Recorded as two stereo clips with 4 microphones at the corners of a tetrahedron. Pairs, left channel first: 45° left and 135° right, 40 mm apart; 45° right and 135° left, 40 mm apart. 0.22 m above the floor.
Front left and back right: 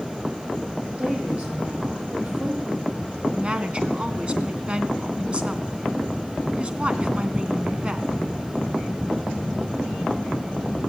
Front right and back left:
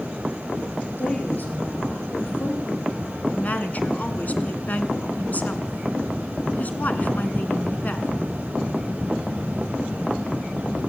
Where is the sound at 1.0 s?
75° right, 9 m; by 3.0 s 95° right, 8 m.